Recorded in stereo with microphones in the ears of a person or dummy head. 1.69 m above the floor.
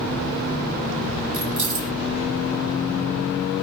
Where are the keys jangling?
45° right (ahead or behind), 0.7 m.